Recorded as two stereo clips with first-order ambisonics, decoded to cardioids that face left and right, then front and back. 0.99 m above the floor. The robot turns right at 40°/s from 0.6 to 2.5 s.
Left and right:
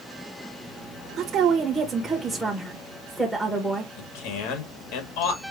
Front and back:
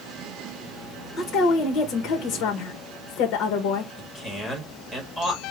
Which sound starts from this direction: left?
A man speaking, at 4.0 s.